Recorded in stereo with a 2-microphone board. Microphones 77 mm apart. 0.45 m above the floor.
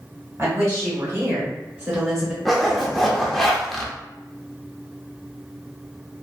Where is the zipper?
Centre (ahead or behind), 0.5 m.